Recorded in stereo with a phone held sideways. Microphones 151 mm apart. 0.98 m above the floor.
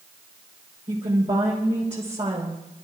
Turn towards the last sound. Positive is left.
turn(degrees=-50)  # may be behind; listen again after turning